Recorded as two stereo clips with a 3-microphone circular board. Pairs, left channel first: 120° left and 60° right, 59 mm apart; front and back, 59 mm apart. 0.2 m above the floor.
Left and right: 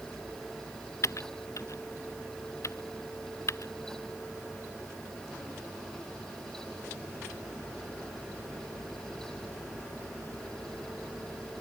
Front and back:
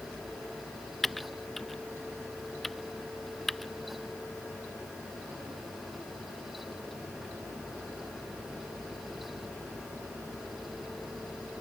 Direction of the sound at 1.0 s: 85° left.